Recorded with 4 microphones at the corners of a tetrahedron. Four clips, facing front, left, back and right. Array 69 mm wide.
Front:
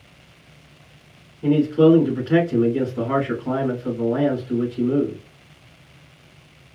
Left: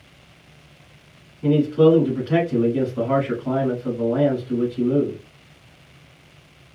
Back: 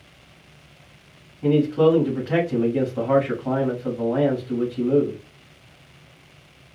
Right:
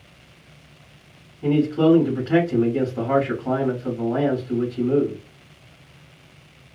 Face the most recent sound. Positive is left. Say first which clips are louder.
# left 2 dB, front 2 dB
turn(degrees=-150)